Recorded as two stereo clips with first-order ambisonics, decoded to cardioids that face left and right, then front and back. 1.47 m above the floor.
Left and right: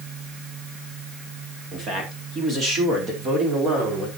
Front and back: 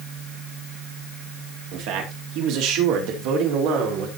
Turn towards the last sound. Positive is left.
turn(degrees=-160)